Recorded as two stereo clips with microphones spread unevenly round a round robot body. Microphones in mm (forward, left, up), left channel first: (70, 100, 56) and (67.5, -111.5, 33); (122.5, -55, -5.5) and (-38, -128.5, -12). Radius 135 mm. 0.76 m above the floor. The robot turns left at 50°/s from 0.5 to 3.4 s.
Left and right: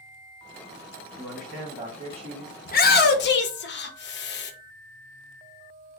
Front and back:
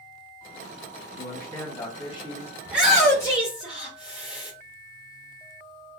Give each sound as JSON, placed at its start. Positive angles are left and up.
{"t": 1.2, "sound": "a man speaking", "azimuth_deg": 10, "distance_m": 1.5}
{"t": 2.6, "sound": "a shout", "azimuth_deg": 130, "distance_m": 0.6}